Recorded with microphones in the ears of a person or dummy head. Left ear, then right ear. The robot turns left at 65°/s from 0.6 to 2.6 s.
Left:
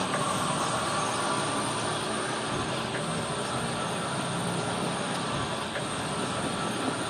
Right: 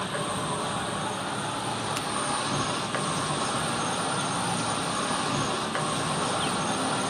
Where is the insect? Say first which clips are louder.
Left 2 dB; 85° left, 1.4 m; by 7.1 s 45° right, 1.4 m.